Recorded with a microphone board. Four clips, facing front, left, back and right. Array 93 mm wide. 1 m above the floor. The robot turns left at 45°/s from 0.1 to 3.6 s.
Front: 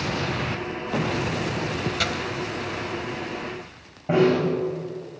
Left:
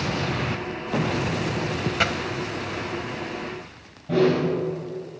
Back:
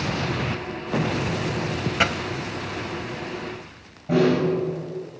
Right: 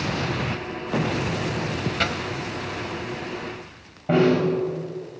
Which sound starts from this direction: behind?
A dropped coin, at 2.0 s.